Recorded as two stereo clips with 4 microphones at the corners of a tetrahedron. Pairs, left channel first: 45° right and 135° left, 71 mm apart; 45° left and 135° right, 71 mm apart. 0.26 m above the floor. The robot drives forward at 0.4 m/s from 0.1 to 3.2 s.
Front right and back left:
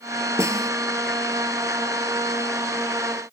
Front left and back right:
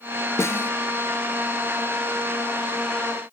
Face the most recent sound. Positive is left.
turn(degrees=145)